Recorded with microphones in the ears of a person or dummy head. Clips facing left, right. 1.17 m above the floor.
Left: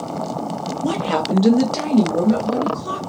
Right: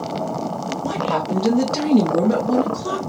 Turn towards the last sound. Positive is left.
turn(degrees=-50)  # may be behind; listen again after turning